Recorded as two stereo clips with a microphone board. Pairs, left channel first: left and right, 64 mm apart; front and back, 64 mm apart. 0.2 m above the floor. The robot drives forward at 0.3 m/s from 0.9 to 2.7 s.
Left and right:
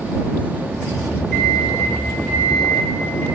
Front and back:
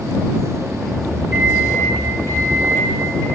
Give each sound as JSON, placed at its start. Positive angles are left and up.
{"t": 1.3, "sound": "a microwave", "azimuth_deg": 155, "distance_m": 1.9}